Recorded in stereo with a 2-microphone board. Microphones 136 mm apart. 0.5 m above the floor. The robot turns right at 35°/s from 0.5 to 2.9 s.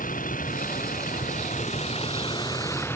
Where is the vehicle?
80° left; by 3.0 s 165° left.